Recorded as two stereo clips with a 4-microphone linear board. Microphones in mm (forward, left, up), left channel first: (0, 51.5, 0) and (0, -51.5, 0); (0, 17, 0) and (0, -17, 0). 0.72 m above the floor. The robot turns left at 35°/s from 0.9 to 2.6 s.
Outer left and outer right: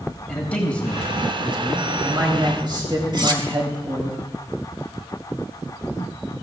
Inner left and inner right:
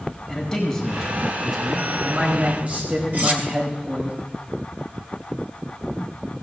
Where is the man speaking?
10° left, 4.5 m; by 4.1 s 50° right, 4.5 m.